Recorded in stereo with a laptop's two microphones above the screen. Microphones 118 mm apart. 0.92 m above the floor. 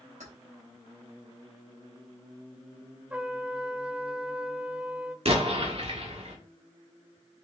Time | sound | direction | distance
0.2 | keys jangling | 90° right | 3 m
3.1 | a trumpet | 10° right (ahead or behind) | 0.8 m
5.2 | an explosion | 60° right (ahead or behind) | 1.6 m